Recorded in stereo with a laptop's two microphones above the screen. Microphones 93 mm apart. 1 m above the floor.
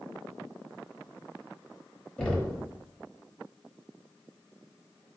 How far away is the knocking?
About 0.9 m.